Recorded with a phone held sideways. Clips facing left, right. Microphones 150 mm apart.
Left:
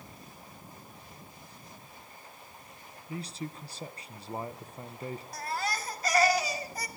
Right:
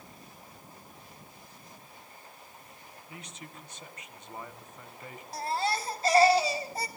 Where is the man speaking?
35° left (ahead or behind), 1.0 m.